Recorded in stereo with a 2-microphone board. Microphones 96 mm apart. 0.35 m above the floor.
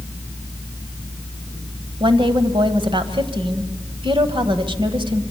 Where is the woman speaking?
55° right (ahead or behind), 1.6 m.